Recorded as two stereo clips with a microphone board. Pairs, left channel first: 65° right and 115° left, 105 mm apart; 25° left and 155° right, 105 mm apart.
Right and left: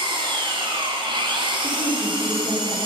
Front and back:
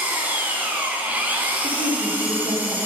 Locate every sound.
0.0 s an engine running: 130° left, 1.6 m
1.6 s a woman speaking: 100° left, 4 m